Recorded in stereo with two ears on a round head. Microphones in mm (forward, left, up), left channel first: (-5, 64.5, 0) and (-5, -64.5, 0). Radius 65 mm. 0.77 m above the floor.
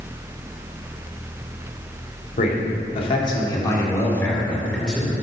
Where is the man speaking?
50° left (ahead or behind), 1.7 m; by 5.1 s centre (ahead or behind), 2.5 m.